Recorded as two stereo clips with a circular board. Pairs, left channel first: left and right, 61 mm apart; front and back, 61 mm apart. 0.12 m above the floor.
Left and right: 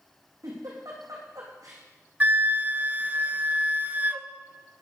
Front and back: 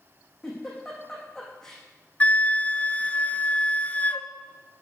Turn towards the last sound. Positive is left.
turn(degrees=-50)